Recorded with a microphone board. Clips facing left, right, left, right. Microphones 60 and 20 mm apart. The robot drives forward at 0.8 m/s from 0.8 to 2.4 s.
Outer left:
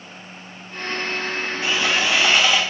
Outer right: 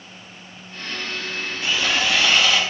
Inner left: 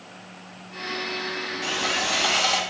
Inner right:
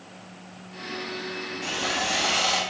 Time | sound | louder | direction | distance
1.6 | sawing | outer left 1 dB, inner left 2 dB | 25° left (ahead or behind) | 1.4 m